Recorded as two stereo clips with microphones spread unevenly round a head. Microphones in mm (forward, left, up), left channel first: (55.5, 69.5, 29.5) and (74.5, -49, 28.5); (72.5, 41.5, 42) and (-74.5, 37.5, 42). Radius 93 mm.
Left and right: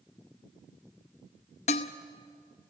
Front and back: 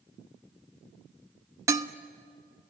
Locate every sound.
1.7 s dishes clattering: 115° left, 0.8 m